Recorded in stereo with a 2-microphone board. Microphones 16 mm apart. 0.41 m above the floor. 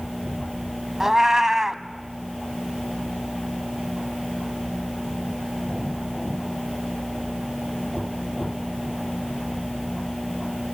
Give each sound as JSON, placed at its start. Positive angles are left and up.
{"t": 1.0, "sound": "a cat meowing", "side_deg": -30, "distance_m": 0.9}